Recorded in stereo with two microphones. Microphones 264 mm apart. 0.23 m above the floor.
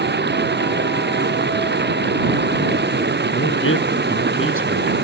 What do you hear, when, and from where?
0.0 s running water: 40° right (ahead or behind)
3.3 s a man speaking: 55° left (ahead or behind)